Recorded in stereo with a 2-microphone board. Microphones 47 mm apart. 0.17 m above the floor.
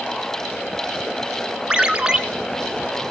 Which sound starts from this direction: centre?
A ringtone, at 1.7 s.